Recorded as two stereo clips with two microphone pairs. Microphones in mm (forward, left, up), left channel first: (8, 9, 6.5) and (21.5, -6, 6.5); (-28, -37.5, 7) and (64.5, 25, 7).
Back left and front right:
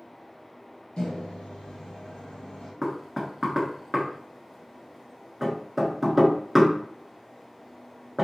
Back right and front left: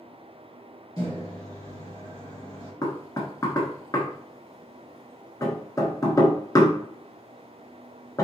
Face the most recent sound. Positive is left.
turn(degrees=-125)